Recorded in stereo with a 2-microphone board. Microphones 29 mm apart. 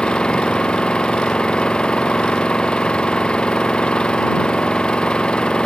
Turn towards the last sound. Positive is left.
turn(degrees=35)  # may be behind; listen again after turning